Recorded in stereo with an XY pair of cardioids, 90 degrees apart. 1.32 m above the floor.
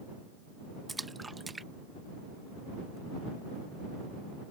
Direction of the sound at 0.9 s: 20° right.